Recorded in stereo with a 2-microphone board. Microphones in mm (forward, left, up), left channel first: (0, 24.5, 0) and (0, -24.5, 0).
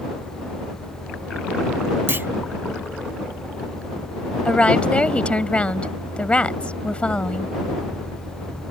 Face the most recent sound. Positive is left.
turn(degrees=25)  # may be behind; listen again after turning